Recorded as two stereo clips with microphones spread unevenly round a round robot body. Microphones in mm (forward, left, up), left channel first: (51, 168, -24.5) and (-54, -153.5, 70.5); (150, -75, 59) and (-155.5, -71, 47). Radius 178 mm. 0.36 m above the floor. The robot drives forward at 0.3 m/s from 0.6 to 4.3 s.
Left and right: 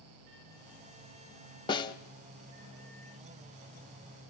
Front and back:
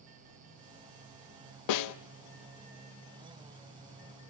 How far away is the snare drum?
About 0.8 m.